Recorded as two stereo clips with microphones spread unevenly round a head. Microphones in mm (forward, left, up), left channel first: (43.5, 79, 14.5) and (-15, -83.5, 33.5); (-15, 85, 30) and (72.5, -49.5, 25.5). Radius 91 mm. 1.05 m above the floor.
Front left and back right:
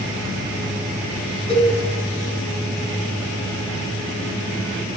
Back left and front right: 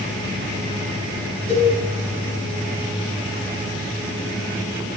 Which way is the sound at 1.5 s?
80° left.